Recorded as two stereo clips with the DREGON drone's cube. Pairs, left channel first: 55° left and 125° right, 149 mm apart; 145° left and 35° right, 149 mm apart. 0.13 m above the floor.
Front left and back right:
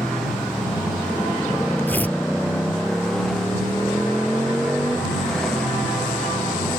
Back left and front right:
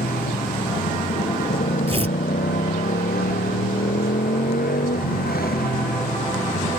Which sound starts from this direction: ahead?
Tearing paper, at 1.9 s.